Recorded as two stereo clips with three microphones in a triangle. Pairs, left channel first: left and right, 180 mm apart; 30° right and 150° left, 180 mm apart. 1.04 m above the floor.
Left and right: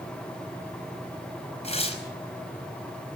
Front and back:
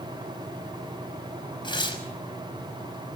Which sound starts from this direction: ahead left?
Tearing paper, at 1.6 s.